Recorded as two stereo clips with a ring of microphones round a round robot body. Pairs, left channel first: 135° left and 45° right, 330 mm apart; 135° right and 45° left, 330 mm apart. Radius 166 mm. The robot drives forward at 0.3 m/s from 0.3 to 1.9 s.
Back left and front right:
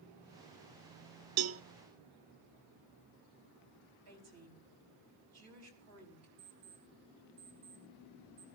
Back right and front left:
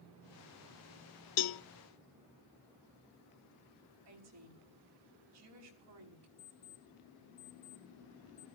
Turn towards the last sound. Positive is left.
turn(degrees=-85)